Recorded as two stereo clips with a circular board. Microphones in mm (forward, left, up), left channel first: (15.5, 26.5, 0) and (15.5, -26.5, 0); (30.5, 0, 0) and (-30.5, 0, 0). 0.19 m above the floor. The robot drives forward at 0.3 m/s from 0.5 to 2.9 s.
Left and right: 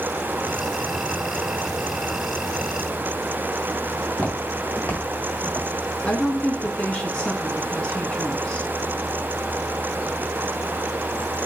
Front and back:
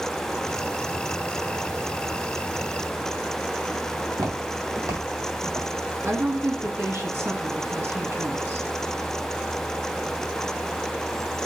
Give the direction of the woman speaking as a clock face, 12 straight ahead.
7 o'clock.